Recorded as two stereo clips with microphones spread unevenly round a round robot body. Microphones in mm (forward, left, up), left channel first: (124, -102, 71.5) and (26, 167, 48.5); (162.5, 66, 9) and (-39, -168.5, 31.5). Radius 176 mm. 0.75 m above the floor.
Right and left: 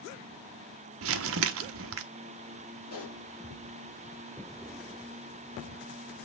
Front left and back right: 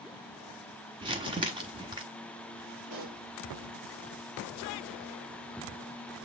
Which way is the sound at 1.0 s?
150° left.